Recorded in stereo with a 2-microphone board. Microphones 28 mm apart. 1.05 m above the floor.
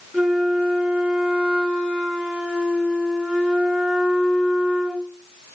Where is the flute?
65° right (ahead or behind), 2.5 m.